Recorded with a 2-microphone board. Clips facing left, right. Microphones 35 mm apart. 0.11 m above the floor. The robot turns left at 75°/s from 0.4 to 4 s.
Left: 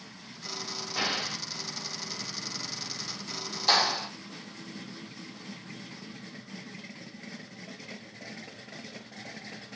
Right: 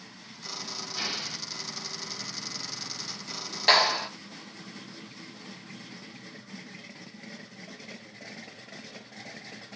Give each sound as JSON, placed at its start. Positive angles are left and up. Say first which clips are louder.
{"t": 1.0, "sound": "an explosion", "louder": "left 4 dB", "azimuth_deg": 120, "distance_m": 1.3}
{"t": 3.7, "sound": "a clap", "louder": "right 3 dB", "side_deg": -45, "distance_m": 1.3}